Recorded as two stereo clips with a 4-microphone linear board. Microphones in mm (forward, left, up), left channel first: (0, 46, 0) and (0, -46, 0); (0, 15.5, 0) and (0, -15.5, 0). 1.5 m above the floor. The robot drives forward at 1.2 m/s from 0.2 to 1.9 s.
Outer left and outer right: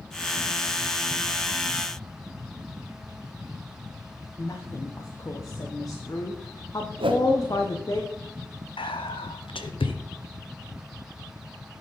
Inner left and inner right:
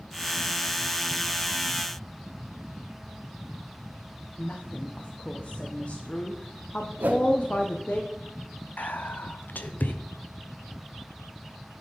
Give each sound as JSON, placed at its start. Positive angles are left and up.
{"t": 4.4, "sound": "a woman speaking", "side_deg": 40, "distance_m": 0.8}
{"t": 7.0, "sound": "a whoosh", "side_deg": -75, "distance_m": 1.0}
{"t": 8.8, "sound": "whispering", "side_deg": 80, "distance_m": 0.7}